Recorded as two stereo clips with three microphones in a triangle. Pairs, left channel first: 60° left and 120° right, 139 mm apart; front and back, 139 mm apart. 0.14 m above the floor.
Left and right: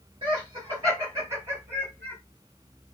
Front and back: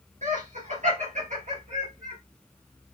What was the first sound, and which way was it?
Laughter, 175° right.